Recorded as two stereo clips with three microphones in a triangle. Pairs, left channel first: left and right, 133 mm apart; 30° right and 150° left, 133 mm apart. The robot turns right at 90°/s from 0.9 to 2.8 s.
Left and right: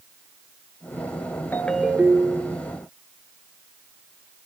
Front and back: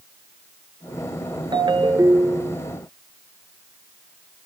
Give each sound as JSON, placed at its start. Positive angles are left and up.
{"t": 1.5, "sound": "a ringtone", "azimuth_deg": 155, "distance_m": 1.1}